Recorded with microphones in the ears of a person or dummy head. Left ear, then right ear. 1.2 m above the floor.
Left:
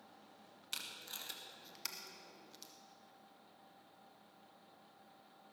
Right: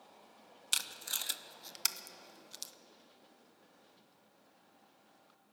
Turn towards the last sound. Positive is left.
turn(degrees=-25)  # may be behind; listen again after turning